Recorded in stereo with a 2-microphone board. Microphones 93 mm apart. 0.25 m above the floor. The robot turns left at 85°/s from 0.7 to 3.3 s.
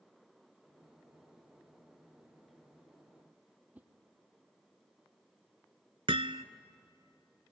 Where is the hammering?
75° right (ahead or behind), 0.7 m.